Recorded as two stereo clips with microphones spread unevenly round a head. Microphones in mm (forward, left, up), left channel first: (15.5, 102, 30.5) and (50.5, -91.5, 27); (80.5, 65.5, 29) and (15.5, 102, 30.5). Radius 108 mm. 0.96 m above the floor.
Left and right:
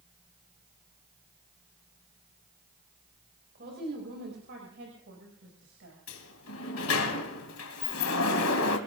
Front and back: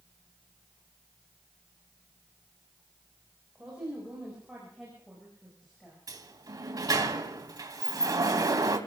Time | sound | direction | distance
3.5 | a woman speaking | 130° right | 4.5 m
6.1 | a sliding door | 125° left | 2 m